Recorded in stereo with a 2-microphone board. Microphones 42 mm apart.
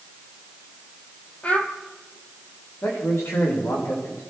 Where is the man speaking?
80° left, 9.5 m.